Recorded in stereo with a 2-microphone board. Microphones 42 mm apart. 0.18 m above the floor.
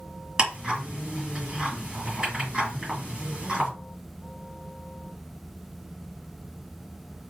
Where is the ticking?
15° right (ahead or behind), 3 m.